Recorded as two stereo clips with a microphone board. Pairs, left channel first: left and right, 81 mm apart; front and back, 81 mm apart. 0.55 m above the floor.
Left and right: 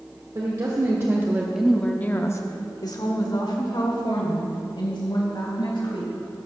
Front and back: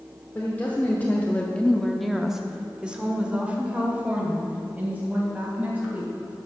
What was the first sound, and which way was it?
A woman speaking, 65° right.